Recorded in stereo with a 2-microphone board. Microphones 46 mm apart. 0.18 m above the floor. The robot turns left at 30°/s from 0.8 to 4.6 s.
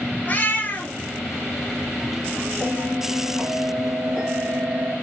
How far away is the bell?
About 2 m.